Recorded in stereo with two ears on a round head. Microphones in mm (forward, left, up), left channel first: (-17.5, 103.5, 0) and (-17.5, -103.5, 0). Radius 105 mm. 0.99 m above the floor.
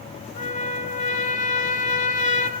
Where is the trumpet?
35° left (ahead or behind), 3 m.